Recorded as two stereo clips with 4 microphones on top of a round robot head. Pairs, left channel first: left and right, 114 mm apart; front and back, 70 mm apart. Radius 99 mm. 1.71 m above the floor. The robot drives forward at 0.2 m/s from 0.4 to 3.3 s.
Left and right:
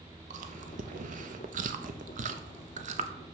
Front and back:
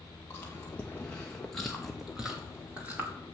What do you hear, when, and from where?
0.3 s chewing: 70° right, 0.8 m; by 3.1 s 110° right, 0.8 m